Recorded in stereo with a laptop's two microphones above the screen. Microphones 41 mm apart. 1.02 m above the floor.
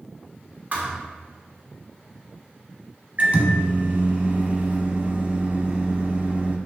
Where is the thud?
40° right (ahead or behind), 0.8 m.